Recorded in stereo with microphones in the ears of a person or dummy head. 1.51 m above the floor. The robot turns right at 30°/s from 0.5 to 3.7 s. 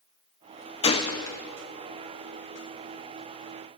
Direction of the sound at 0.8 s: 30° left (ahead or behind).